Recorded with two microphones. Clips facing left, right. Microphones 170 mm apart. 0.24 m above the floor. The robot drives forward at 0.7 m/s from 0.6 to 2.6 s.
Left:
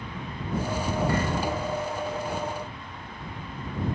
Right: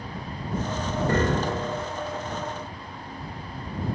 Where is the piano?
60° right (ahead or behind); by 1.9 s 75° right (ahead or behind).